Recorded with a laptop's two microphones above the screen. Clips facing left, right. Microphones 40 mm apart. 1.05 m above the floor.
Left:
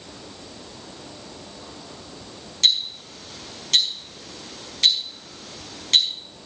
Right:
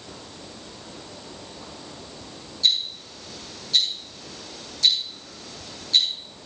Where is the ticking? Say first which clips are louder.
Left 2 dB; 70° left (ahead or behind), 5 m.